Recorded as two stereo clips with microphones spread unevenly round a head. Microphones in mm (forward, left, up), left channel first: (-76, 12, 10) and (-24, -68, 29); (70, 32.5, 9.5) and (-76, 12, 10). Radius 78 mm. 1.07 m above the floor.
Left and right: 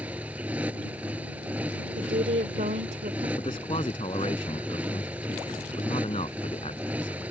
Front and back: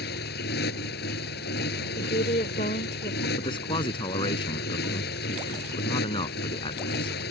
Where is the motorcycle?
25° left.